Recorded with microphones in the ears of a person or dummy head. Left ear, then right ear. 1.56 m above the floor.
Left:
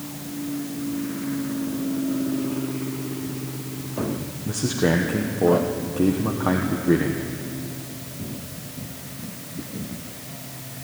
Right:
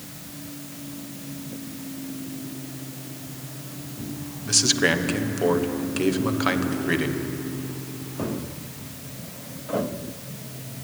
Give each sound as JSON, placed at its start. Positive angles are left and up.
{"t": 4.5, "sound": "a man speaking", "side_deg": -70, "distance_m": 1.1}